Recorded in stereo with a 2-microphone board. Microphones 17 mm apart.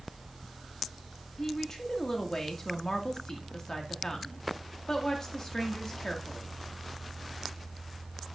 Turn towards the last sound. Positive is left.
turn(degrees=40)  # may be behind; listen again after turning